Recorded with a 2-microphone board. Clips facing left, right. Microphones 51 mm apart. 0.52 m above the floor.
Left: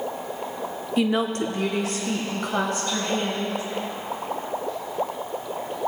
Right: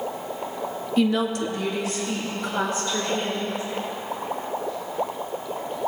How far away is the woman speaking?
About 0.8 m.